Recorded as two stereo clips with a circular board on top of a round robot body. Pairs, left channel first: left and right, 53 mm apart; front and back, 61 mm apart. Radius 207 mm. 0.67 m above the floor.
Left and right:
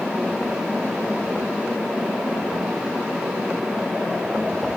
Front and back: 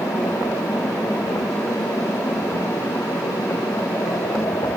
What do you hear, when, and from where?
Only background noise.